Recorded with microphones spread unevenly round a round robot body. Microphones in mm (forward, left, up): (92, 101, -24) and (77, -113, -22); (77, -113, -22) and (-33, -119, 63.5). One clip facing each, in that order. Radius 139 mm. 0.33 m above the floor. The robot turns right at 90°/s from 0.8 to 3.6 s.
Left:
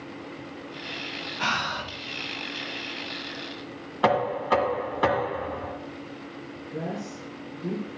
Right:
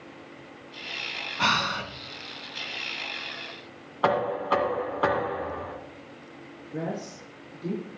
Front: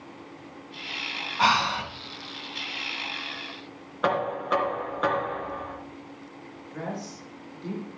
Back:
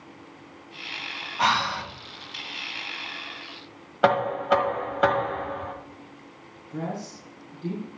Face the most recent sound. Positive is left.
turn(degrees=-170)